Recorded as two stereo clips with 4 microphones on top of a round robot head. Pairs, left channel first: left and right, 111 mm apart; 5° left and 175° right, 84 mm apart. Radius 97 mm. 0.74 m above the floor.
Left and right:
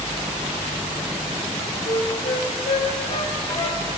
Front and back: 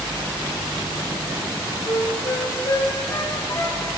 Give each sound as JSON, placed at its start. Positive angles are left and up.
{"t": 1.9, "sound": "a flute", "azimuth_deg": 55, "distance_m": 1.6}